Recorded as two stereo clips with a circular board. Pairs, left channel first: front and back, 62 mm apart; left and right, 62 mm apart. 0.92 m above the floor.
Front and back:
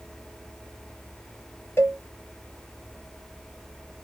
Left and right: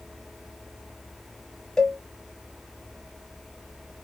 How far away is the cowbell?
About 0.9 m.